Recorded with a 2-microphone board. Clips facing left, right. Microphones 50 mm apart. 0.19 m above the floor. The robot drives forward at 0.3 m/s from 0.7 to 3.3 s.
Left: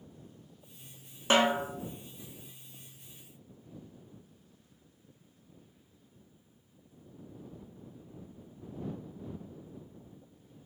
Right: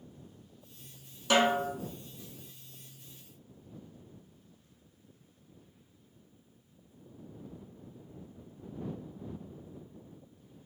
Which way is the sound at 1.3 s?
35° left (ahead or behind).